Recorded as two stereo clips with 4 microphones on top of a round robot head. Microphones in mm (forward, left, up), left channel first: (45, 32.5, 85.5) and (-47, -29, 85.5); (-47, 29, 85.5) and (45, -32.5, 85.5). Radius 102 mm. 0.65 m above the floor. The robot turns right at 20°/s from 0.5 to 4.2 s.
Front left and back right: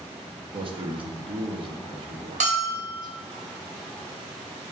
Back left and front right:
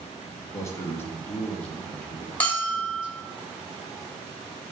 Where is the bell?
140° right, 2.5 m; by 3.0 s 125° right, 2.5 m.